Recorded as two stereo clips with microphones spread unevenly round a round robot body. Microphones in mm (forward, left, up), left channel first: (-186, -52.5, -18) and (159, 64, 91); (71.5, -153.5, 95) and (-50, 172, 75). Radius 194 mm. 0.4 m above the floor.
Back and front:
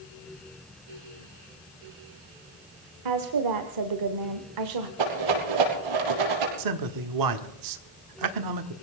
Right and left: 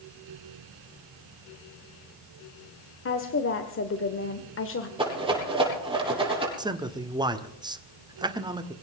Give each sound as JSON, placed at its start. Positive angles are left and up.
{"t": 3.0, "sound": "a woman speaking", "azimuth_deg": -20, "distance_m": 1.5}
{"t": 5.0, "sound": "a rattle", "azimuth_deg": 35, "distance_m": 6.5}
{"t": 6.6, "sound": "a man speaking", "azimuth_deg": 40, "distance_m": 1.6}